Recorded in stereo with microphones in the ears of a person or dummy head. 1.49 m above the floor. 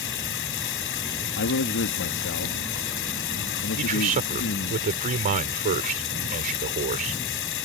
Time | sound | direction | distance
0.0 | running water | 60° left (ahead or behind) | ?
1.4 | a man speaking | 60° left (ahead or behind) | ?
3.8 | a man speaking | 40° right (ahead or behind) | ?